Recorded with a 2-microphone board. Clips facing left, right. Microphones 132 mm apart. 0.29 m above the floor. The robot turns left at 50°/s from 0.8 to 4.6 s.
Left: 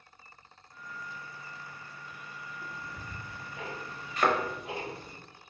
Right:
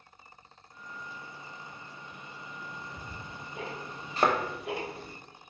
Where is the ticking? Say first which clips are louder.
Even; 20° left (ahead or behind), 1.0 m; by 5.2 s 80° right, 1.0 m.